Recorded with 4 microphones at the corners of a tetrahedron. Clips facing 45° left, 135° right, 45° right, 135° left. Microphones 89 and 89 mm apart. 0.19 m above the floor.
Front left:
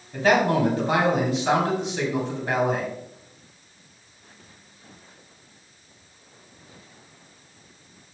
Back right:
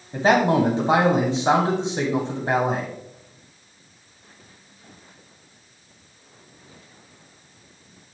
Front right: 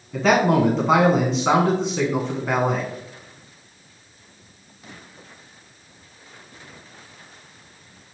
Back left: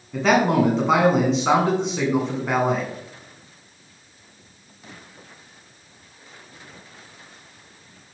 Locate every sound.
0.1 s a man speaking: 135° right, 1.2 m